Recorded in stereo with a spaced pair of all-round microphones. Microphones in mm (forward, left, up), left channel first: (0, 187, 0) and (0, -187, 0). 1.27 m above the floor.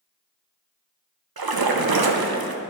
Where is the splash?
70° right (ahead or behind), 0.6 m.